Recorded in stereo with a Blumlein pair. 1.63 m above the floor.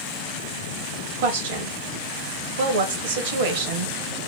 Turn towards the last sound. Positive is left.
turn(degrees=-55)